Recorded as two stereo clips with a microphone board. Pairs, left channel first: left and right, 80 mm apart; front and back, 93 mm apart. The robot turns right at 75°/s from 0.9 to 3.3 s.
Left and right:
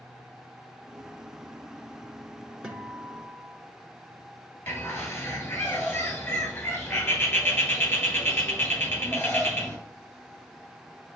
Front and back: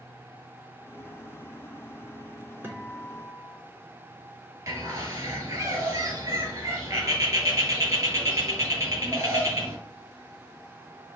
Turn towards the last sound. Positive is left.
turn(degrees=140)